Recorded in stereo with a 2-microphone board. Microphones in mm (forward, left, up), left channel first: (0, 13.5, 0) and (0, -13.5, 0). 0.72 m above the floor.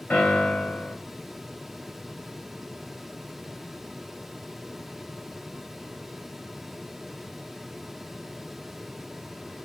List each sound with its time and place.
0.1 s a piano: 75° left (ahead or behind), 3.5 m